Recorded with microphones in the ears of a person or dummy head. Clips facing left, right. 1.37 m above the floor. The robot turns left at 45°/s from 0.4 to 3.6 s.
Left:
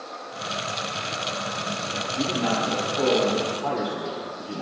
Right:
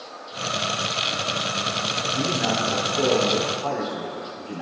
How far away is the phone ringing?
No phone ringing in this recording.